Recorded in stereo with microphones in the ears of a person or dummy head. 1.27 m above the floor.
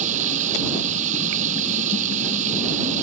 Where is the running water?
40° right (ahead or behind).